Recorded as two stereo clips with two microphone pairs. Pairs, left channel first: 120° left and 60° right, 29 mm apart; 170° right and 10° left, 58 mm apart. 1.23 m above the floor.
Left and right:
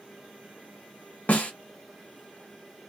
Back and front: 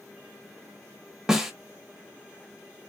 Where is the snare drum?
90° left, 1.1 m.